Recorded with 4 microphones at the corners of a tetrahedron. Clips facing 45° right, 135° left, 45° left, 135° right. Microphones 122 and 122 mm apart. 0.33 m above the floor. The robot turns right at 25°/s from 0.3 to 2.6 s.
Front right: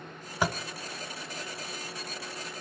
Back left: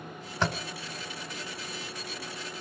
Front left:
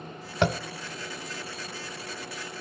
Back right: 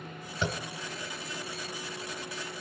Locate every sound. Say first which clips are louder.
0.4 s tapping: even, front left 8 dB; 35° left, 0.8 m; by 0.6 s 40° left, 0.8 m